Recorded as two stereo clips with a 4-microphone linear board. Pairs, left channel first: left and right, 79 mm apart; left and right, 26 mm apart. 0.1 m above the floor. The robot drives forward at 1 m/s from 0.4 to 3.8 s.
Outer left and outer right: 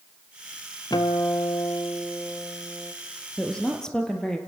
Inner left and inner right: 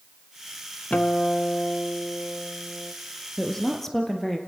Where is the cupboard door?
I don't hear a cupboard door.